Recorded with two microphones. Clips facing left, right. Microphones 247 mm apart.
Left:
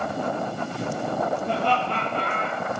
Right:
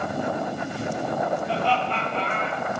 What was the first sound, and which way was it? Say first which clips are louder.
Laughter: even; 60° left (ahead or behind).